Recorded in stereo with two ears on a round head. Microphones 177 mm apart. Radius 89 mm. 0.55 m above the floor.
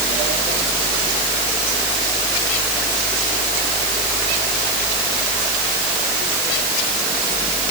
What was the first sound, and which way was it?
Only background noise.